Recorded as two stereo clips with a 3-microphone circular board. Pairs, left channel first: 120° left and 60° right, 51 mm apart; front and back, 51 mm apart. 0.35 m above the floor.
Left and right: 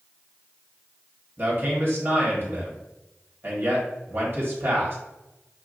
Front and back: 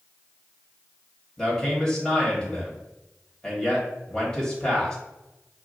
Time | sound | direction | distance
1.4 | a man speaking | 70° right | 2.0 m